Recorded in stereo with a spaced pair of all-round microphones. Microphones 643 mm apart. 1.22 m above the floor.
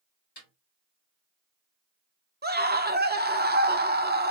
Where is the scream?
15° right (ahead or behind), 0.7 m.